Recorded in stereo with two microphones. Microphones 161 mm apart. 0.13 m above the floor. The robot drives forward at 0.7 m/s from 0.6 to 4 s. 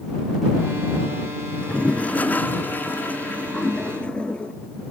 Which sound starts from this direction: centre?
A toilet flushing, at 1.5 s.